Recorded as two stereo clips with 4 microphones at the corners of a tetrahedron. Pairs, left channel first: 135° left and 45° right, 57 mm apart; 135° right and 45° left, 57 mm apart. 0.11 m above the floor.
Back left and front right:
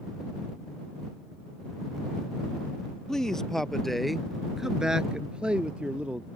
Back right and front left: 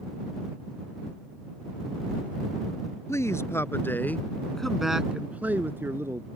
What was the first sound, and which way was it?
A man speaking, 145° right.